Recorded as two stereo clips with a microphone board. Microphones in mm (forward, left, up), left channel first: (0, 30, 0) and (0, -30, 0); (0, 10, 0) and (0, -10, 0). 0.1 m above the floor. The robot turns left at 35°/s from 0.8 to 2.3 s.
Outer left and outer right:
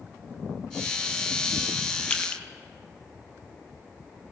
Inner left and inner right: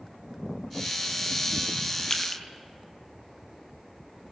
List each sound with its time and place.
2.1 s crushing: 15° left (ahead or behind), 2.5 m; by 2.4 s 25° left (ahead or behind), 2.5 m